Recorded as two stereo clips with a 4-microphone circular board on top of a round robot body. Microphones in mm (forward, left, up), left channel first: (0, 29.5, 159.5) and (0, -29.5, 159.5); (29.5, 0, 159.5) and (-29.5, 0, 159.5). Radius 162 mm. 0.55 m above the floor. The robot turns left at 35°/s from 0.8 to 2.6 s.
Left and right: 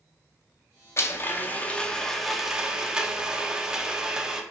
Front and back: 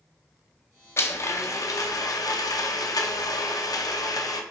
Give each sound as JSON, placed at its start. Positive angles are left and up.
{"t": 1.0, "sound": "a blender", "azimuth_deg": 45, "distance_m": 0.5}